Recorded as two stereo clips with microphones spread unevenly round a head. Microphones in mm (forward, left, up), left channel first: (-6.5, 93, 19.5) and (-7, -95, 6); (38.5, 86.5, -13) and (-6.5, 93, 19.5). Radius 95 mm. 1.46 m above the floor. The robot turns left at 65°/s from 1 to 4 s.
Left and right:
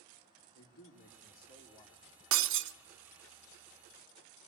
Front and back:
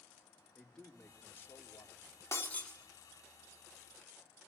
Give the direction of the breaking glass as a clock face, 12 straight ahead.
3 o'clock.